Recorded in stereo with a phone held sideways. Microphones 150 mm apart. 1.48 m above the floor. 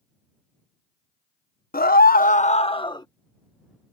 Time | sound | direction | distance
1.7 | a scream | 80° left | ?